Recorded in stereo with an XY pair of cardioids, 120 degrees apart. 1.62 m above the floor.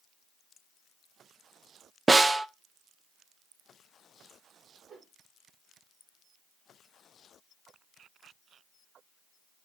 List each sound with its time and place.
2.1 s a snare drum: 20° right, 0.7 m
4.9 s a whoosh: 40° right, 3.5 m